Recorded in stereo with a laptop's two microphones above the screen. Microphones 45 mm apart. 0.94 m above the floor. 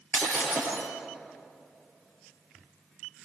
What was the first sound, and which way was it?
Breaking glass, 70° left (ahead or behind).